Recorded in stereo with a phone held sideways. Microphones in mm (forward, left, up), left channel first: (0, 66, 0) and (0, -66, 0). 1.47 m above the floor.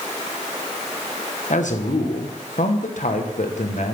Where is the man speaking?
70° left (ahead or behind), 1.3 m.